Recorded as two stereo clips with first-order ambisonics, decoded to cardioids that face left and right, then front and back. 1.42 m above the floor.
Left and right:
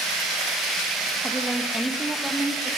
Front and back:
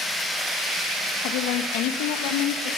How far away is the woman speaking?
About 1.8 m.